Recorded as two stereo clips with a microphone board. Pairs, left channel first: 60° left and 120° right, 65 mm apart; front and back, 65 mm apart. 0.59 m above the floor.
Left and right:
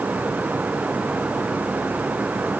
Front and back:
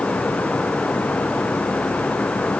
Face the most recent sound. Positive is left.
No sound to turn to.